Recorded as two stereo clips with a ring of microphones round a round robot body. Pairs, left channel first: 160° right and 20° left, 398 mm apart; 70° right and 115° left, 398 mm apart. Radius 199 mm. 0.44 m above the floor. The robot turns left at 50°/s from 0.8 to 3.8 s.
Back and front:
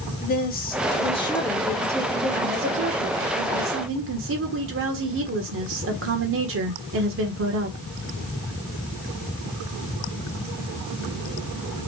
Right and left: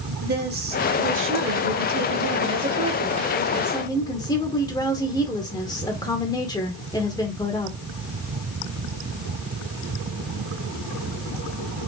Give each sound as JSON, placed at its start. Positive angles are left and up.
{"t": 0.2, "sound": "a woman speaking", "azimuth_deg": 155, "distance_m": 1.2}